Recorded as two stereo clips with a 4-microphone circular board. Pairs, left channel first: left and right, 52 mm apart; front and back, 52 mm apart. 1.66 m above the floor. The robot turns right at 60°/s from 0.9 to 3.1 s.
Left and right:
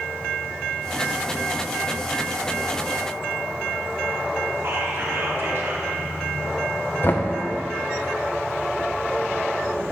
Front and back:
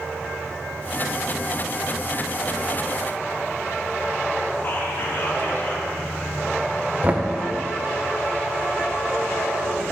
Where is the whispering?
50° right, 2.0 m.